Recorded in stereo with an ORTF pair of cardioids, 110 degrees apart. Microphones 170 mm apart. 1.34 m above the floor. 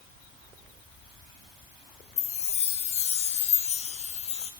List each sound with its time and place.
2.2 s a chime: 40° left, 0.6 m